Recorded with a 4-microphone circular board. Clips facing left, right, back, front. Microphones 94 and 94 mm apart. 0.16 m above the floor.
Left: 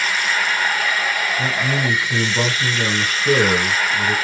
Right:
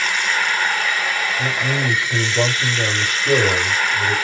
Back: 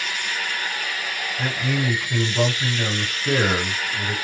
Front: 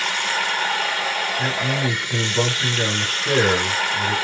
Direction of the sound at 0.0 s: 5° left.